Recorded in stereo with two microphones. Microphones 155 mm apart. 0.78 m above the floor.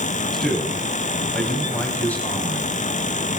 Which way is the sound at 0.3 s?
Centre (ahead or behind).